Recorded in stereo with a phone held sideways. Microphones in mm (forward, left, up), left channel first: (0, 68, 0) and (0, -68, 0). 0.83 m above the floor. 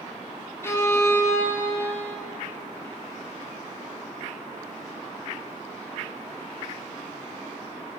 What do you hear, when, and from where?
0.6 s a violin: 20° left (ahead or behind), 3.5 m